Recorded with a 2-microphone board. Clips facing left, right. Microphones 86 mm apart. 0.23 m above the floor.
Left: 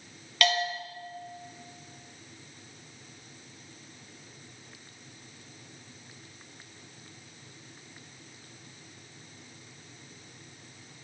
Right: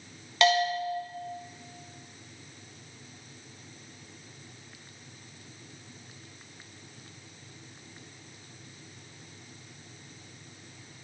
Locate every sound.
0.4 s a bell: 25° right (ahead or behind), 2.0 m